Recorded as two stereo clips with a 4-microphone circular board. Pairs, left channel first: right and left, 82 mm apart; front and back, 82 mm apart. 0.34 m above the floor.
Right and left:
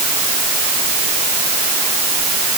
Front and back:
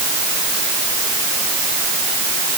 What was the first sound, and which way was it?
Only background noise.